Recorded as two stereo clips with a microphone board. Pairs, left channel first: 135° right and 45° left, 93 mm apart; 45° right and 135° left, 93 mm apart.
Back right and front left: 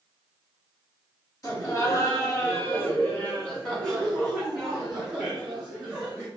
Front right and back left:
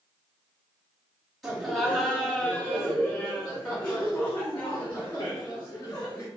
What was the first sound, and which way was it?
Laughter, 140° right.